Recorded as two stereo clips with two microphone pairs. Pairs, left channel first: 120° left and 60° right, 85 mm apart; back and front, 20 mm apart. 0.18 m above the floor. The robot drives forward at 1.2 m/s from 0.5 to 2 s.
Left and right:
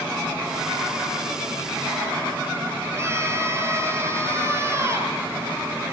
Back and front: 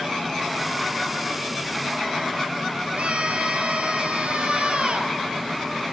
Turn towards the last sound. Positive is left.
turn(degrees=-5)